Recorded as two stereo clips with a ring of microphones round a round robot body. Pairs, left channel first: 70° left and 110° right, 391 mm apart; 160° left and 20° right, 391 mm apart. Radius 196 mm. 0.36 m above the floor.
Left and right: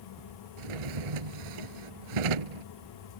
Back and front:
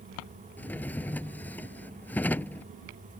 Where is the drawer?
115° right.